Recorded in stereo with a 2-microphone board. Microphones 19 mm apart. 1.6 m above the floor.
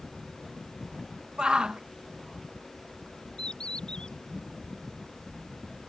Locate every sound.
1.4 s a shout: 50° right (ahead or behind)
3.4 s a bird: 45° left (ahead or behind)